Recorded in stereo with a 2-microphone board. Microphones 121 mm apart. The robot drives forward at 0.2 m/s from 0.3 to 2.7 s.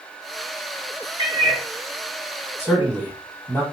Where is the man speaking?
5° left (ahead or behind), 1.6 m.